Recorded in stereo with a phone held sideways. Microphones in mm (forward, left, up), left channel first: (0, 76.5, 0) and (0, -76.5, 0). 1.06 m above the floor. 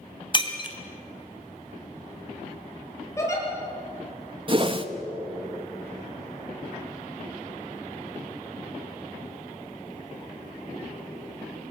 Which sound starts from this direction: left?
Breaking glass, at 0.3 s.